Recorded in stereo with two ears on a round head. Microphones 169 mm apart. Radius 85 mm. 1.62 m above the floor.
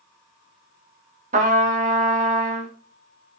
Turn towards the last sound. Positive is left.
turn(degrees=-40)  # may be behind; listen again after turning